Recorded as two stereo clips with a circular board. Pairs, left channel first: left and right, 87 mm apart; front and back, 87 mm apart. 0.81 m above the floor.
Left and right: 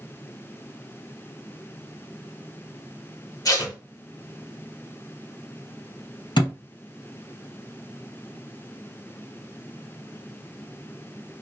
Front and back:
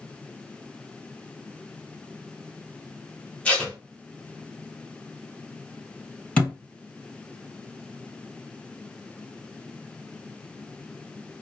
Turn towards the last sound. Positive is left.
turn(degrees=75)